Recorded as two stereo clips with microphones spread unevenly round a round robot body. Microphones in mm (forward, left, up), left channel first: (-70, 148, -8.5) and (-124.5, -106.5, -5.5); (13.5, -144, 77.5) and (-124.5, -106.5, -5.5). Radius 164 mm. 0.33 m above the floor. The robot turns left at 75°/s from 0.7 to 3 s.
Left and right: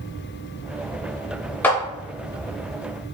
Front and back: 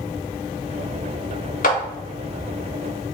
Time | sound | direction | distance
1.6 | a clap | 5° left | 0.6 m